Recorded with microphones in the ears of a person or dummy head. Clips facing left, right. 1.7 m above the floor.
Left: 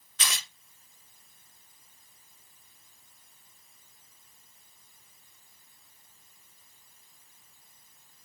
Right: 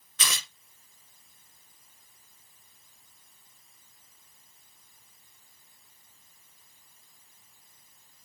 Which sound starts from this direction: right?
Tearing paper, at 0.2 s.